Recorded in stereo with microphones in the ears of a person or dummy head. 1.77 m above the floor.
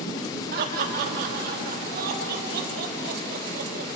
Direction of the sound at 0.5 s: 55° right (ahead or behind).